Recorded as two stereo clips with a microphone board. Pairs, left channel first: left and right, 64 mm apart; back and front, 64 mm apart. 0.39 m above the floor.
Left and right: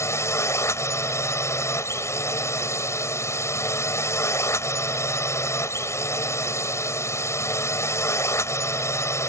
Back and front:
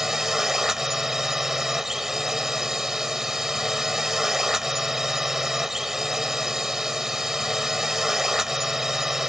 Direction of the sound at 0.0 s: 80° left.